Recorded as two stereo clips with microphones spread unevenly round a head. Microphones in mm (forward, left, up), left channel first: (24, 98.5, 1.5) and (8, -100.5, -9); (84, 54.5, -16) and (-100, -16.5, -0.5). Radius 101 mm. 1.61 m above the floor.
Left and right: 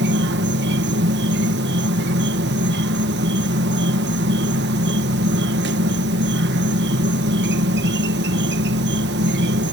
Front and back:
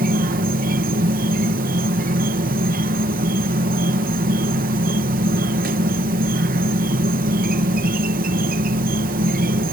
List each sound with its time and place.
0.0 s an insect: 125° right